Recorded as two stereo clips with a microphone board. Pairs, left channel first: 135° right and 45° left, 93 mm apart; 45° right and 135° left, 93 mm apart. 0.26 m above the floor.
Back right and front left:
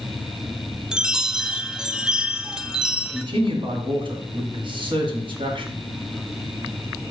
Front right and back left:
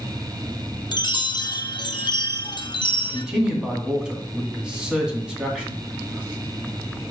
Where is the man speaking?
55° left, 2 m.